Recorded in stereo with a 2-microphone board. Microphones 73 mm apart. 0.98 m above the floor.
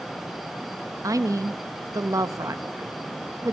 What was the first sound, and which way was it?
A woman speaking, 55° right (ahead or behind).